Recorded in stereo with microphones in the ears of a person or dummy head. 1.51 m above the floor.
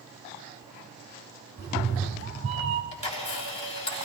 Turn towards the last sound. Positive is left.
turn(degrees=35)  # may be behind; listen again after turning